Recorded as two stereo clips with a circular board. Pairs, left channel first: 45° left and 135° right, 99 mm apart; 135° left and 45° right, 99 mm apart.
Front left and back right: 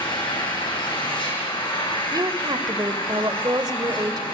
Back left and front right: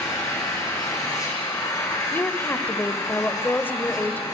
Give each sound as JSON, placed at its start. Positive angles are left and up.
{"t": 0.0, "sound": "an engine running", "azimuth_deg": 80, "distance_m": 9.0}
{"t": 2.1, "sound": "a woman speaking", "azimuth_deg": -160, "distance_m": 1.3}